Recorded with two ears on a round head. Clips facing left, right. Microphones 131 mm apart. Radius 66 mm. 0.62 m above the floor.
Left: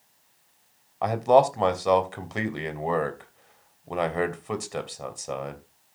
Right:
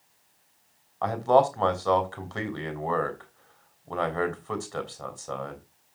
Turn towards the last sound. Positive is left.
turn(degrees=20)  # may be behind; listen again after turning